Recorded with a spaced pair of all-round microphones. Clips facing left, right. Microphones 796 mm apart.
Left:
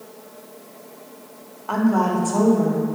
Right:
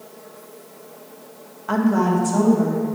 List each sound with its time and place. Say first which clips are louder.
1.7 s a woman speaking: right 1 dB; 50° right (ahead or behind), 1.0 m